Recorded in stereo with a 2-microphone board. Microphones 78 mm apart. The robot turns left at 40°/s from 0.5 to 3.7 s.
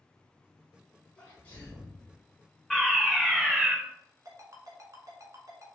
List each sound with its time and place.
1.2 s a sneeze: 145° left, 1.6 m; by 2.1 s 110° left, 1.6 m
2.7 s a fire alarm: 5° left (ahead or behind), 1.8 m; by 3.7 s 10° right (ahead or behind), 1.8 m
4.2 s a ringtone: 45° right (ahead or behind), 1.2 m